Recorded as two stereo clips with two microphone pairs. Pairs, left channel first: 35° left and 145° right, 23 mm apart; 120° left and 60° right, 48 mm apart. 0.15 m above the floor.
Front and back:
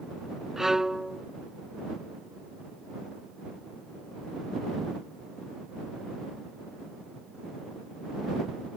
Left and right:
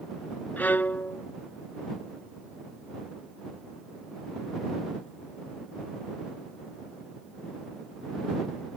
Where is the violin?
155° left.